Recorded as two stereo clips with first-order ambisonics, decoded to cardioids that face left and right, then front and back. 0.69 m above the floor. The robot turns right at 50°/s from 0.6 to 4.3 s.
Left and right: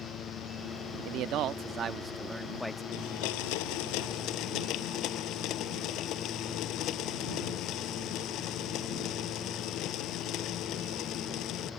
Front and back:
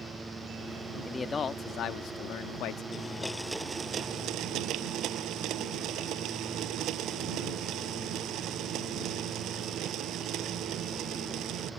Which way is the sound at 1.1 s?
75° right.